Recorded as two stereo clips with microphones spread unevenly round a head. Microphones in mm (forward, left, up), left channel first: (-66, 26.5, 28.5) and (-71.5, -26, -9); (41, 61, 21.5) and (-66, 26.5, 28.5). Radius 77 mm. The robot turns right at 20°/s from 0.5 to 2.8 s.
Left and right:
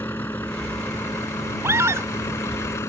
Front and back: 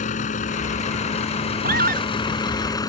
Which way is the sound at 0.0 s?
30° left.